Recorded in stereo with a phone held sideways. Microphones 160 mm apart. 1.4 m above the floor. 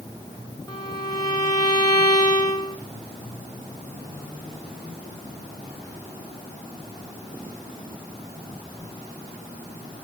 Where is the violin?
25° left (ahead or behind), 1.3 m.